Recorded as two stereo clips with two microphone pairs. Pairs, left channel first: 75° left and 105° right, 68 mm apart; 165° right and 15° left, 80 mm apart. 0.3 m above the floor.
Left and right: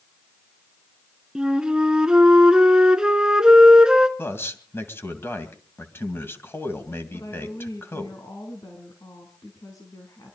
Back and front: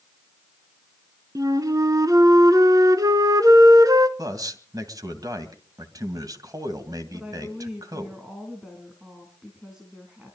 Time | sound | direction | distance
1.4 | a flute | 25° right | 1.0 m
4.2 | a man speaking | 35° left | 2 m
7.1 | a woman speaking | 95° left | 3 m